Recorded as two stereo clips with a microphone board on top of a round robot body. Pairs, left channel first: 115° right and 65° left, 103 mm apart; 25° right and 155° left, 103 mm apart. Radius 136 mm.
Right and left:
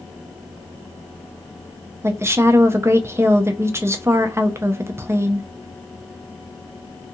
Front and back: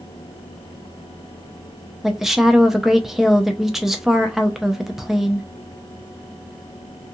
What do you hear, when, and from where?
2.0 s a woman speaking: 75° left, 0.6 m